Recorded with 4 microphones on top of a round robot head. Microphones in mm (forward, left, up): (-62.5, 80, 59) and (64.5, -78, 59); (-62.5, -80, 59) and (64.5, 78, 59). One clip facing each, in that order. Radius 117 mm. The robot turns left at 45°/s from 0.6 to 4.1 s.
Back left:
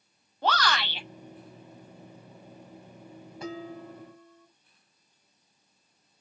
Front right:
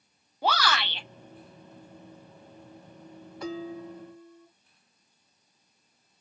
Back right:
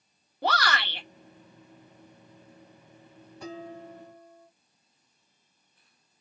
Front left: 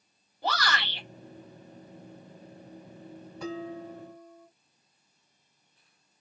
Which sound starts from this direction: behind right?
A shout, at 0.4 s.